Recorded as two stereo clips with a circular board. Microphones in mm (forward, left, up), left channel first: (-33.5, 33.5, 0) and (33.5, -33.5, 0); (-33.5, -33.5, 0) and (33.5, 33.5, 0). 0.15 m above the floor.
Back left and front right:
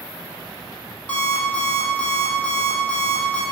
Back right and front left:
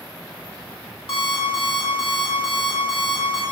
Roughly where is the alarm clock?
Behind right.